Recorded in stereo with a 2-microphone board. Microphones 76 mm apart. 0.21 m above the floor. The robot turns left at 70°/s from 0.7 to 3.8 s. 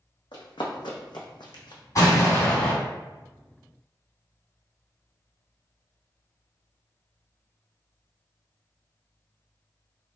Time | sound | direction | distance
0.3 | running footsteps | 80° left | 0.8 m
1.9 | an explosion | 75° left | 1.8 m